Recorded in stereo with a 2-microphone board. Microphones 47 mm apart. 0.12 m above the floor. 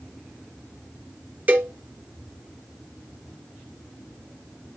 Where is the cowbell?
30° right (ahead or behind), 2 m.